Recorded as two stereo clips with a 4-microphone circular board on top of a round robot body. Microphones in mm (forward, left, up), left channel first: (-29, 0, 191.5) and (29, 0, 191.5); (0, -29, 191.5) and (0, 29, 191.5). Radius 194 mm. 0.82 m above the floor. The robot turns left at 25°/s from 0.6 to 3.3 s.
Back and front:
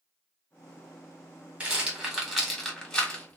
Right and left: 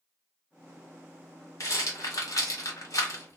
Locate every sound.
1.6 s a rattle: 65° right, 1.5 m; by 3.4 s 110° right, 1.5 m